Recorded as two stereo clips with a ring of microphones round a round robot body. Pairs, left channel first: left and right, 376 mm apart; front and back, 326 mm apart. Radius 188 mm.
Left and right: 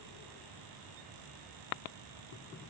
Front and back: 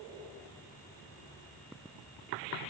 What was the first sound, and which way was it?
Only background noise.